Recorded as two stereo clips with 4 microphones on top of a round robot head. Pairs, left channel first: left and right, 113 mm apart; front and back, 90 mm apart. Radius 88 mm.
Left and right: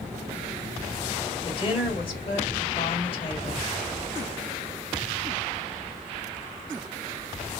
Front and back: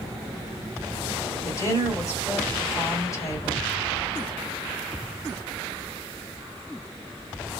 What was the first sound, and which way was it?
A woman speaking, 55° left.